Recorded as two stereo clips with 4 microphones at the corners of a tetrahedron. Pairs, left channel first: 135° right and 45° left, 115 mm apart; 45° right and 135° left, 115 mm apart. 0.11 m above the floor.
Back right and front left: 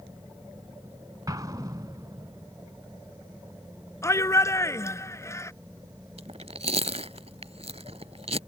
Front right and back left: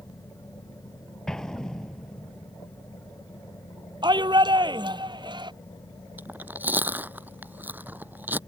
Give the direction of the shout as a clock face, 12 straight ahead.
6 o'clock.